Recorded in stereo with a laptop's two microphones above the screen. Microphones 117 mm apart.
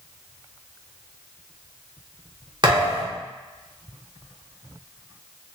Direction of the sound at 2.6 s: 40° right (ahead or behind).